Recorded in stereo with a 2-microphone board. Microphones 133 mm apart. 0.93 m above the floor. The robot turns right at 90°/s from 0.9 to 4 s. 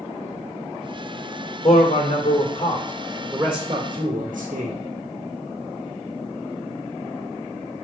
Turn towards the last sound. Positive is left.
turn(degrees=-95)